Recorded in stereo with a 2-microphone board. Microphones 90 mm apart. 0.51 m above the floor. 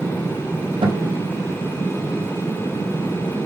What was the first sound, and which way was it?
A guitar, 70° right (ahead or behind).